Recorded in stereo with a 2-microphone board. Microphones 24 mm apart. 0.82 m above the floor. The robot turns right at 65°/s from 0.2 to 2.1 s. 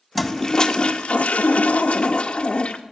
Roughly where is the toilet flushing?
Ahead.